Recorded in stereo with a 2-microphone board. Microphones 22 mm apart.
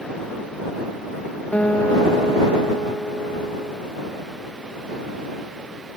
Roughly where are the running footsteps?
I don't hear running footsteps.